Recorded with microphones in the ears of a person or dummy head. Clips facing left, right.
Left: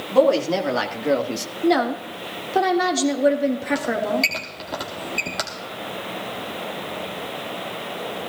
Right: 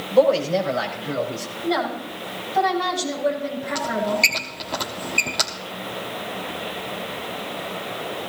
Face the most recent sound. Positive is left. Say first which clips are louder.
# left 1 dB
turn(degrees=5)  # may be behind; listen again after turning